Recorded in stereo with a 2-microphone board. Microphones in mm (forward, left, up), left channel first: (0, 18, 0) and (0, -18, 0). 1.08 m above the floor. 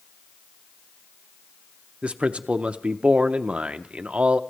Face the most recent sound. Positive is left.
turn(degrees=-35)  # may be behind; listen again after turning